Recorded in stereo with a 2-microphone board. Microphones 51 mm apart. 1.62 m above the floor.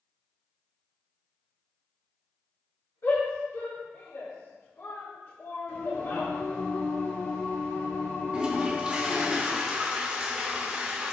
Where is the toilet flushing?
20° right (ahead or behind), 2.5 m.